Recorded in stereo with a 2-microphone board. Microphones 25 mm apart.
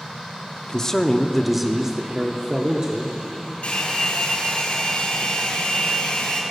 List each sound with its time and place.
0.7 s a man speaking: 25° left (ahead or behind), 0.8 m; by 3.5 s 55° right (ahead or behind), 1.5 m
3.6 s a hair dryer: 60° left (ahead or behind), 3.5 m